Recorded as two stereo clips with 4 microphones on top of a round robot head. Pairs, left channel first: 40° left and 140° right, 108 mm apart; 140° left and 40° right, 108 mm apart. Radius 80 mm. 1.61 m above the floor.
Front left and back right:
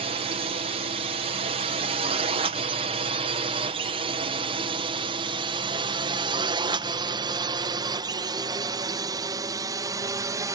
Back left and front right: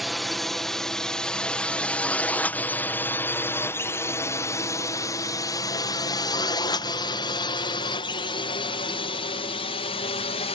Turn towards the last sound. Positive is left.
turn(degrees=165)